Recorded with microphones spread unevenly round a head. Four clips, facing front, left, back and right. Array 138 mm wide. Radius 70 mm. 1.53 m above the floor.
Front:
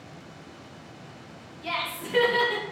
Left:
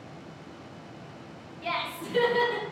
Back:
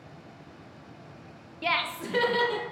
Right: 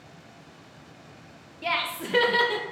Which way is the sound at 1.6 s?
155° right.